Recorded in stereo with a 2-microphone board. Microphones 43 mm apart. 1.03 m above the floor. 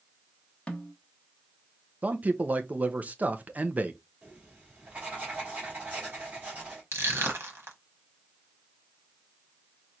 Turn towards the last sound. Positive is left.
turn(degrees=-65)  # may be behind; listen again after turning